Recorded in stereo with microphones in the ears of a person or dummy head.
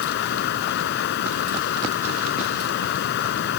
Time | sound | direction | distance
0.0 | running water | 65° left (ahead or behind) | ?